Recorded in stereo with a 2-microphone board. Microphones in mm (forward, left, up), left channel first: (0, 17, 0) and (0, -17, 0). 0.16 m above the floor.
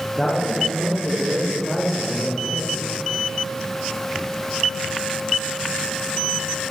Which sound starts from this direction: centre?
A man speaking, at 0.1 s.